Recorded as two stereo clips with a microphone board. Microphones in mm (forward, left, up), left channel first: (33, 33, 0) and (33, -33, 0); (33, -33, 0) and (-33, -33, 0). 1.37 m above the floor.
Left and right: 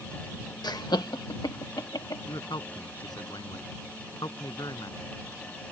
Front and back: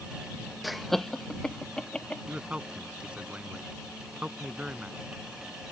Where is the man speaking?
105° left.